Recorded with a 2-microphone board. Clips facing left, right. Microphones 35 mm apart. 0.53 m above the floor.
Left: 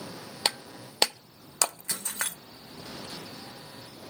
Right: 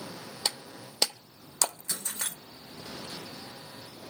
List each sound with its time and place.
0.5 s breaking glass: 50° left (ahead or behind), 0.7 m